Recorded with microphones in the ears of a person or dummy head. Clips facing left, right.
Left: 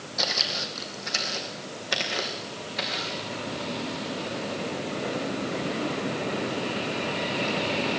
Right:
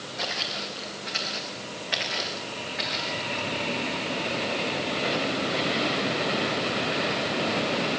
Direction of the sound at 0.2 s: 60° left (ahead or behind).